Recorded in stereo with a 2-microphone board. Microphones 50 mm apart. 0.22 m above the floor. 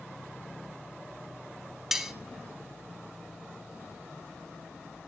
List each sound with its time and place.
1.9 s cutlery clinking: 5° right (ahead or behind), 0.9 m